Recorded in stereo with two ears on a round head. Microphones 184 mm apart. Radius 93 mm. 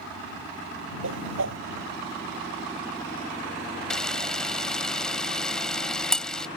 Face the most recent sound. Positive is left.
turn(degrees=5)  # may be behind; listen again after turning